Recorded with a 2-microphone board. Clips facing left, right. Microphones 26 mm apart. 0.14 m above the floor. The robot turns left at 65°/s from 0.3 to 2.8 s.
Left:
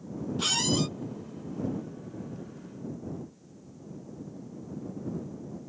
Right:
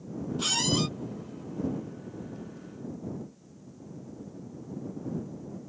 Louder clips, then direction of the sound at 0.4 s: Even; 15° left.